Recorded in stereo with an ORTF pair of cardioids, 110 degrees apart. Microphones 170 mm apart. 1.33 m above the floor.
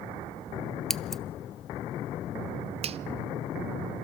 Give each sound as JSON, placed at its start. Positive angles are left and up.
{"t": 0.9, "sound": "scissors", "azimuth_deg": 5, "distance_m": 0.6}
{"t": 2.8, "sound": "a finger snap", "azimuth_deg": -35, "distance_m": 0.6}